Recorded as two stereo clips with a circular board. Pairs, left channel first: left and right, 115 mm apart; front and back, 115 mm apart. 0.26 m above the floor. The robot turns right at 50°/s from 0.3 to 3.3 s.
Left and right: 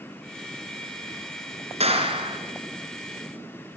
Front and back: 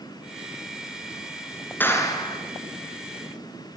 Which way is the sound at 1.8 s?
75° right.